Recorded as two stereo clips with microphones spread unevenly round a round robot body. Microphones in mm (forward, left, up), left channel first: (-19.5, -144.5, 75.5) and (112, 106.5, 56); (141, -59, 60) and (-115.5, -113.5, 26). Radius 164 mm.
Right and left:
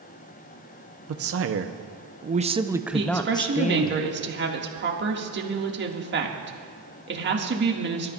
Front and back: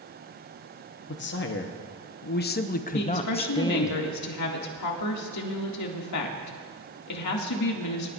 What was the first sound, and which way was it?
A man speaking, 60° left.